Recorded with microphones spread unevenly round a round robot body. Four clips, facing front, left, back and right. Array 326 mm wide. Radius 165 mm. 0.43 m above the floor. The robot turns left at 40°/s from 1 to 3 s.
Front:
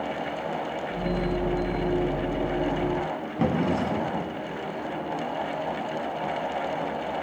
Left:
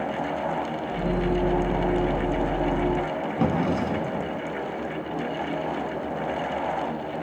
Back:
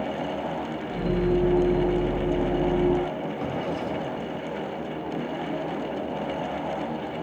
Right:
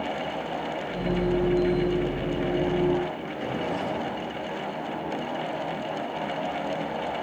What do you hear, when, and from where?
3.4 s a drawer: 60° left, 2 m